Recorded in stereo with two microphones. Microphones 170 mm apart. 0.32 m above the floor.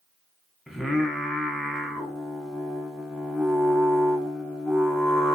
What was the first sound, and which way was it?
Singing, centre (ahead or behind).